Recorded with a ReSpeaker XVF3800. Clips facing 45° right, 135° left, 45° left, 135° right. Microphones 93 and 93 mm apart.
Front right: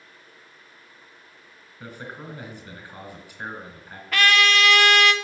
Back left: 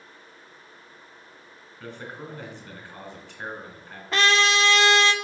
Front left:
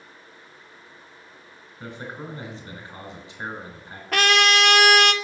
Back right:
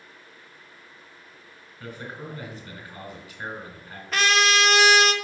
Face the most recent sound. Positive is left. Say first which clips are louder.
# front right 1 dB, front left 2 dB
turn(degrees=70)